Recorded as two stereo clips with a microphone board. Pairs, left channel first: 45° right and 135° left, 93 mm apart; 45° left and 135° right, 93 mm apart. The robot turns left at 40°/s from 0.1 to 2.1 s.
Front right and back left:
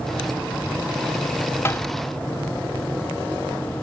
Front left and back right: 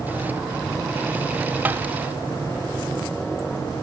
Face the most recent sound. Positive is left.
turn(degrees=-100)